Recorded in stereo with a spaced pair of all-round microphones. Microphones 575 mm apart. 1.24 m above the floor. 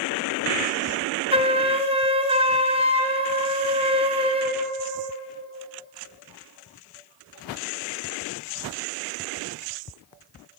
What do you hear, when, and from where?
1.3 s a flute: 10° right (ahead or behind), 0.7 m